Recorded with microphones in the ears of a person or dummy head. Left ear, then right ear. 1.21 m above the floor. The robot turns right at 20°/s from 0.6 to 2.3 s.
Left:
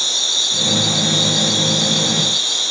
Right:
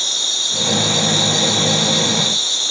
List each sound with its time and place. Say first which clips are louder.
0.0 s an insect: left 1 dB; straight behind, 1.2 m; by 2.7 s 145° right, 1.2 m